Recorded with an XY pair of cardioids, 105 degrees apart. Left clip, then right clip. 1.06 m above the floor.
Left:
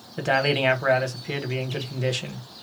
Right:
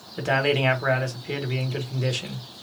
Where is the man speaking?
15° left, 1.1 m.